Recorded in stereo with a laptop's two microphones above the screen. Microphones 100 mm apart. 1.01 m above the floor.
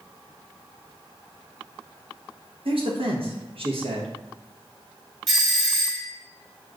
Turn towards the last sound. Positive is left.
turn(degrees=0)  # may be behind; listen again after turning